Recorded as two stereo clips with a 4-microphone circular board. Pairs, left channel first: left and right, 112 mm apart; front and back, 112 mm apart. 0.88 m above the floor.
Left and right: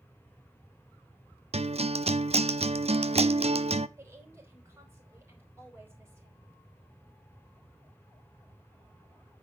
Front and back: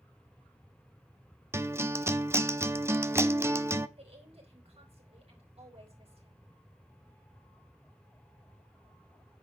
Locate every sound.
1.5 s a guitar: 115° right, 0.6 m
4.0 s a woman speaking: 160° right, 4.5 m